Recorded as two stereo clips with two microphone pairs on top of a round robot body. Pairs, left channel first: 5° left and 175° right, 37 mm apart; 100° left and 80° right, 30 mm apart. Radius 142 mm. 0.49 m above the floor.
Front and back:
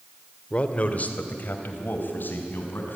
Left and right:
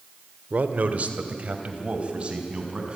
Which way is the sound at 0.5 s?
55° right.